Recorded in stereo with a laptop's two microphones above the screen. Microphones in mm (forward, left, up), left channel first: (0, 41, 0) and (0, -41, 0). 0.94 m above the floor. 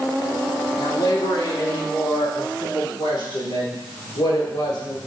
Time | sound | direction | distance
0.8 | a woman speaking | 60° left (ahead or behind) | 1.5 m